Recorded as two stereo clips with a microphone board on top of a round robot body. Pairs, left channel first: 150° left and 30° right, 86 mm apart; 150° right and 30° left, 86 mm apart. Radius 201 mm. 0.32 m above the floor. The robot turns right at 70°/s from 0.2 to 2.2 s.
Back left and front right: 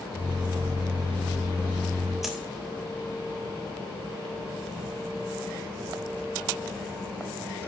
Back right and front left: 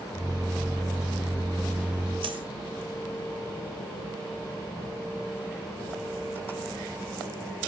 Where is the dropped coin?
55° left, 0.6 m.